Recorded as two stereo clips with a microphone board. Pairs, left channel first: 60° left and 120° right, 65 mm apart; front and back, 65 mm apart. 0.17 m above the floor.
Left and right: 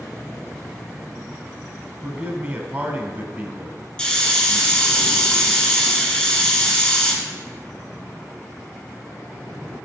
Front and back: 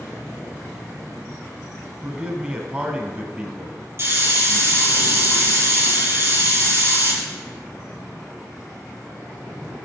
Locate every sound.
2.0 s a man speaking: 125° right, 1.3 m
4.0 s a hiss: 130° left, 3 m